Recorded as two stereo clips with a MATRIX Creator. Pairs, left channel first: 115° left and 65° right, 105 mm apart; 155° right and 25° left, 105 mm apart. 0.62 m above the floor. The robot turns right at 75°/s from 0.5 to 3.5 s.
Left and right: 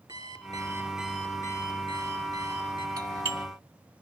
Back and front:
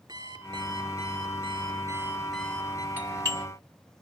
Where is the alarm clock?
25° right, 4 m; by 2.9 s 150° left, 4 m.